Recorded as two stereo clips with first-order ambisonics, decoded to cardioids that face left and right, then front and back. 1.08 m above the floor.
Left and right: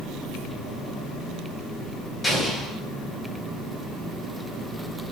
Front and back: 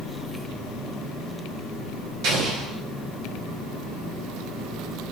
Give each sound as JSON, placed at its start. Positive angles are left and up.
{"t": 2.2, "sound": "an explosion", "azimuth_deg": 170, "distance_m": 0.6}